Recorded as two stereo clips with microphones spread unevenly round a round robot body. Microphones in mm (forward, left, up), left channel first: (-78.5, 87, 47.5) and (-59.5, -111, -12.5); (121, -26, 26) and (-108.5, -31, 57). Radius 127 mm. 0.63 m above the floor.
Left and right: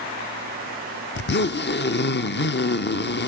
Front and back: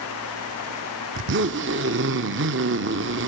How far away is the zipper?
About 0.7 m.